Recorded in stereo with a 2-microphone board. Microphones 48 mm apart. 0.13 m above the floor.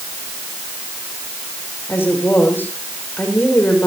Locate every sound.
1.9 s a woman speaking: 50° left (ahead or behind), 6.5 m